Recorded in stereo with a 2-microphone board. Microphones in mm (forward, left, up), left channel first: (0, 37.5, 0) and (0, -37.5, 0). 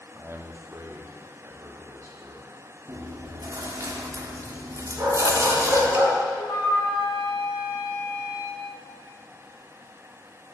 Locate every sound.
0.1 s a man speaking: 30° right (ahead or behind), 0.6 m; by 2.5 s 45° right (ahead or behind), 2.5 m
2.9 s chewing: 45° right (ahead or behind), 0.9 m
5.0 s a dog barking: 35° right (ahead or behind), 2.5 m
6.4 s a flute: 80° left, 3.5 m